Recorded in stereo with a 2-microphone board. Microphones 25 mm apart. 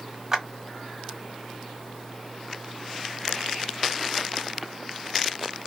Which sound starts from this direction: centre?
A clap, at 0.3 s.